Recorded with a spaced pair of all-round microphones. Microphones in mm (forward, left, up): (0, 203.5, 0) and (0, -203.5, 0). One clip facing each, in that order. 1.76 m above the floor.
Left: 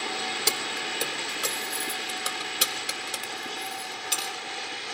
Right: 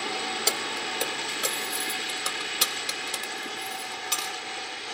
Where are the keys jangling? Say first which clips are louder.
Right 1 dB; 20° left (ahead or behind), 1.0 m; by 4.3 s 15° right (ahead or behind), 2.5 m.